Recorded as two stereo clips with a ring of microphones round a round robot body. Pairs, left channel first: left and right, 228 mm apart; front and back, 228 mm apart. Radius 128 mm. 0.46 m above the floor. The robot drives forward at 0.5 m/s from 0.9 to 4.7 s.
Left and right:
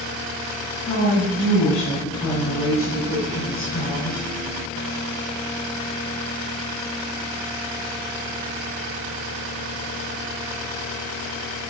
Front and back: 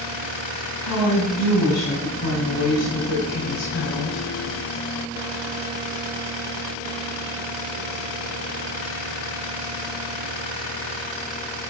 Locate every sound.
0.8 s a woman speaking: 20° left, 3.5 m; by 4.2 s 35° left, 2 m